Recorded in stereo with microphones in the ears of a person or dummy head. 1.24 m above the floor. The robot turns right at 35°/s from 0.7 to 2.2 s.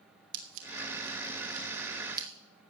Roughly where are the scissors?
Right.